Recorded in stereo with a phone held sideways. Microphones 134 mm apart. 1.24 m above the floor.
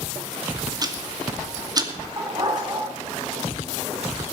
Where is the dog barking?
30° right (ahead or behind), 5 m.